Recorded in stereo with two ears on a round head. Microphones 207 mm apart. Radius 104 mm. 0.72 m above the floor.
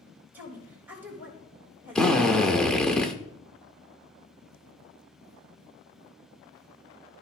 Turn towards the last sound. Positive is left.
turn(degrees=5)  # may be behind; listen again after turning